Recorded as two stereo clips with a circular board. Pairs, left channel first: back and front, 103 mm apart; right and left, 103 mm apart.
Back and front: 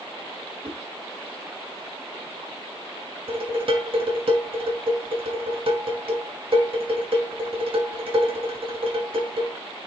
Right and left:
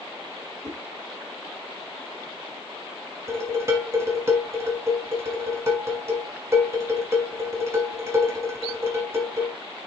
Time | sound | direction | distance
0.6 | a whoosh | 30° left | 3 m
3.3 | dishes clattering | 30° left | 3 m